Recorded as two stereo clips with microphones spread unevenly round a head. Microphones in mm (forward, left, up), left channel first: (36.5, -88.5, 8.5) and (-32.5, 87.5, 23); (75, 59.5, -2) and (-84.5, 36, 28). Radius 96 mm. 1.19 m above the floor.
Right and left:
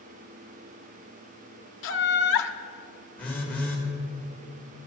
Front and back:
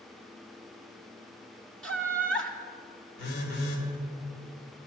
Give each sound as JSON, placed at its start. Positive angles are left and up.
{"t": 1.8, "sound": "laughter", "azimuth_deg": -75, "distance_m": 0.6}
{"t": 3.2, "sound": "a phone buzzing", "azimuth_deg": 15, "distance_m": 1.9}